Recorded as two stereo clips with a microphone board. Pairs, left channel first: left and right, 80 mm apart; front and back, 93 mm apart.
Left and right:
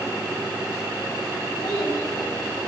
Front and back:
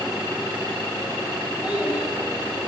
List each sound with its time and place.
1.6 s a child speaking: 105° left, 4 m